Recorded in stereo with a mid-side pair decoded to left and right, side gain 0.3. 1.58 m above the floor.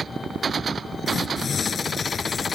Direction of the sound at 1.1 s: 65° left.